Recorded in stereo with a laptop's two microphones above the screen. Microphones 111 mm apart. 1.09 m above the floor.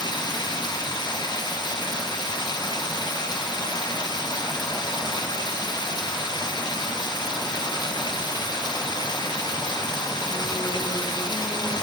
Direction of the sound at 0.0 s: 40° left (ahead or behind).